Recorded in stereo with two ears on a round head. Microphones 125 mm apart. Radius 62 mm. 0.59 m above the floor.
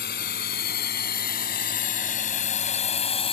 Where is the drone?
80° left; by 3.3 s 40° left (ahead or behind).